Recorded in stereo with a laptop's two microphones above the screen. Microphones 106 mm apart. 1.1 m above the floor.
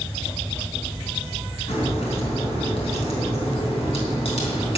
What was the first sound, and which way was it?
A crack, 70° left (ahead or behind).